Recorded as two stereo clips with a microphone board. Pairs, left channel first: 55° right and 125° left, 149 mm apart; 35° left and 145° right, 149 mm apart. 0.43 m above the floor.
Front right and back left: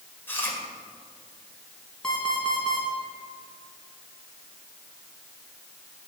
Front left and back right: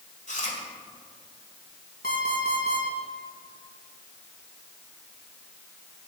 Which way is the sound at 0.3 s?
20° left.